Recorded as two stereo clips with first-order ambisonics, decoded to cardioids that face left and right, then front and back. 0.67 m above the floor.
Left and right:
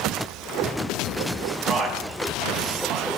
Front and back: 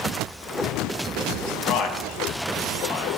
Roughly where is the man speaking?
Ahead.